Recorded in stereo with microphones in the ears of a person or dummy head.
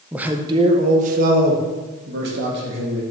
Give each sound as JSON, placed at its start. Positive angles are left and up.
{"t": 0.1, "sound": "a man speaking", "side_deg": -5, "distance_m": 1.3}